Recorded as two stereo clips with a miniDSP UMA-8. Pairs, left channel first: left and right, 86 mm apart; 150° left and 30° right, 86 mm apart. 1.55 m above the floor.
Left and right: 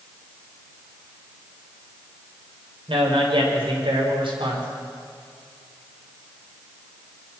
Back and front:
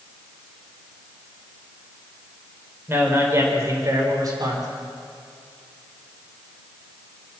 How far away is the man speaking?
About 6.5 m.